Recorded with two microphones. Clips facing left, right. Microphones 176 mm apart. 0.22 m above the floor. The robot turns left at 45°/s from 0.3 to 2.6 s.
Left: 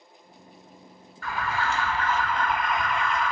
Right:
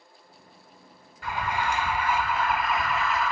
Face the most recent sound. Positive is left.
turn(degrees=-5)  # may be behind; listen again after turning